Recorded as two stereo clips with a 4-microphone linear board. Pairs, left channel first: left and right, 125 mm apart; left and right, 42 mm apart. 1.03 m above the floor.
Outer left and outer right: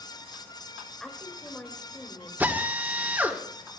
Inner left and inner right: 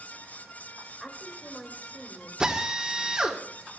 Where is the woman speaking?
5° left (ahead or behind), 5.5 m.